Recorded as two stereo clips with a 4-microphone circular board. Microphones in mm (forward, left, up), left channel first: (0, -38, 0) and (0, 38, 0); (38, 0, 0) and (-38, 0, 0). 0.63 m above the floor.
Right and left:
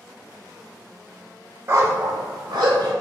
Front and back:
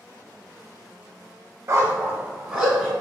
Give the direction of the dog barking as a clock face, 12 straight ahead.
8 o'clock.